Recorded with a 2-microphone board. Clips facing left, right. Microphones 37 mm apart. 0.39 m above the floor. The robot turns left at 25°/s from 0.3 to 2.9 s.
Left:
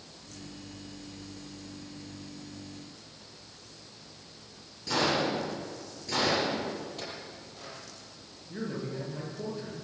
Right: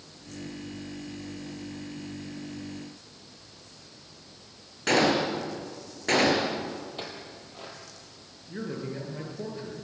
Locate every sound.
4.9 s a gunshot: 65° right (ahead or behind), 5 m
7.0 s a clink: 30° right (ahead or behind), 7 m
8.5 s a man speaking: 20° right (ahead or behind), 8 m